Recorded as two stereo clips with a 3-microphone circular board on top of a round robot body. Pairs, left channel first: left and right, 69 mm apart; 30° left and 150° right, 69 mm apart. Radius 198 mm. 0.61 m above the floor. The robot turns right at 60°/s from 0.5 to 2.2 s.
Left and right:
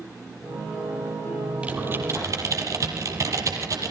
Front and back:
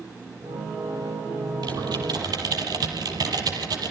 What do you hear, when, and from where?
1.6 s typing on a keyboard: 160° right, 6 m; by 3.9 s 130° right, 6 m